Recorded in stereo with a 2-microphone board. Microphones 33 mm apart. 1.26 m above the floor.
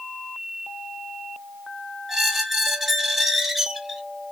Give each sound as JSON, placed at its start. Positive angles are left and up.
{"t": 2.1, "sound": "a squeak", "side_deg": -5, "distance_m": 0.6}